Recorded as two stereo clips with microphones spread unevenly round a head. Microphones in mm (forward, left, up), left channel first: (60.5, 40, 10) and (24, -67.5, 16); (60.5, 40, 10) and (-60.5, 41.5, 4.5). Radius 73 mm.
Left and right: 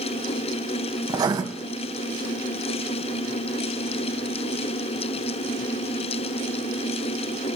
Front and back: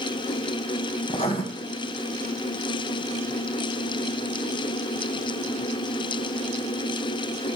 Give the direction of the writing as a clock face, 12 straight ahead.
2 o'clock.